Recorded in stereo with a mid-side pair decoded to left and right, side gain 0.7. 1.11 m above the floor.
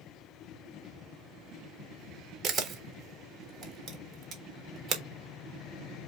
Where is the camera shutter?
40° right, 1.2 m.